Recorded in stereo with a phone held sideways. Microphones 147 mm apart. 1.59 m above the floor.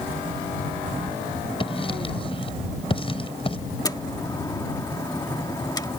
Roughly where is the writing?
Left.